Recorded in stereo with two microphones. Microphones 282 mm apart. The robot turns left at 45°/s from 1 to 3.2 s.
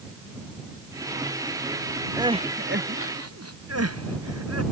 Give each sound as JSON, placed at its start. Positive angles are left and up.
{"t": 2.2, "sound": "crying", "side_deg": -10}